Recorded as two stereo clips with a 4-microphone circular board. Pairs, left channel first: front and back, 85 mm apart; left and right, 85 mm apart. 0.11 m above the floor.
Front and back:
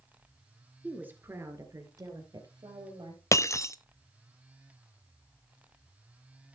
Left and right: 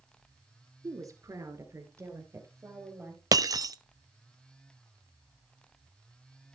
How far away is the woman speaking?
About 2 m.